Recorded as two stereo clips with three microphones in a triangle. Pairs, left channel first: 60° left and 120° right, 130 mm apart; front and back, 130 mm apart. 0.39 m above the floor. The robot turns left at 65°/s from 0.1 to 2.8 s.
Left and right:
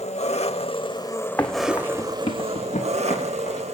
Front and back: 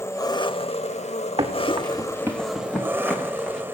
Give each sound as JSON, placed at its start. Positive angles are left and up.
{"t": 0.0, "sound": "an engine running", "azimuth_deg": 65, "distance_m": 0.8}
{"t": 1.4, "sound": "running footsteps", "azimuth_deg": 140, "distance_m": 1.9}